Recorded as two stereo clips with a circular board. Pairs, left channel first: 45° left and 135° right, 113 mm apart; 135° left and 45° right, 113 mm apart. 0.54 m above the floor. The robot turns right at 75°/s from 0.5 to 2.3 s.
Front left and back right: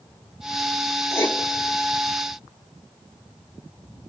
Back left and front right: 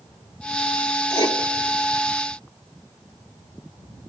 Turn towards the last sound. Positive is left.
turn(degrees=-170)